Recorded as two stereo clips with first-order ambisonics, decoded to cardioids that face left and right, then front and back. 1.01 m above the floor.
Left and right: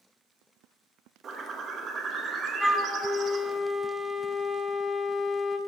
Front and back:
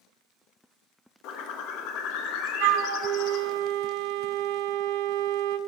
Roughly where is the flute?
Behind.